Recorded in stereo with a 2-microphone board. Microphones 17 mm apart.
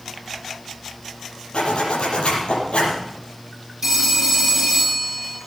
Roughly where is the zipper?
Left.